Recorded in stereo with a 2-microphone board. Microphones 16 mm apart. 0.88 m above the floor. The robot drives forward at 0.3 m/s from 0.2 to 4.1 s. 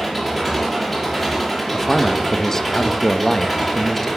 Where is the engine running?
10° right (ahead or behind), 6 m.